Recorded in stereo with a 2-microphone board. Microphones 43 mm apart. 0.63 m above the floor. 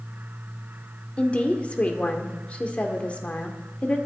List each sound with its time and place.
1.2 s a woman speaking: 30° left (ahead or behind), 1.6 m